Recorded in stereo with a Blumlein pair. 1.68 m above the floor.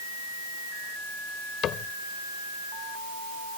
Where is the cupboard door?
30° left.